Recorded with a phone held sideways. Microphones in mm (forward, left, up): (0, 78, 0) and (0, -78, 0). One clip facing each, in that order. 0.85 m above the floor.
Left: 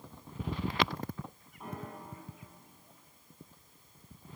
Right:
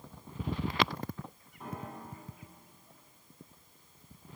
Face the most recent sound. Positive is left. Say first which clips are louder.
# right 1 dB
turn(degrees=0)  # may be behind; listen again after turning